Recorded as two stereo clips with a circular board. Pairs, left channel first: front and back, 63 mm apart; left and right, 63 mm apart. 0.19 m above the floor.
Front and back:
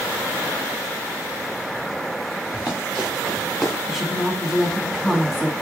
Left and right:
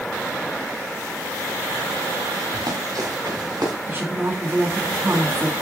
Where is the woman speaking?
100° right, 1.7 m.